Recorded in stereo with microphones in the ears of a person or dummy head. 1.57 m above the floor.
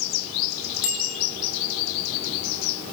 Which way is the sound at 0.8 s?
75° left (ahead or behind).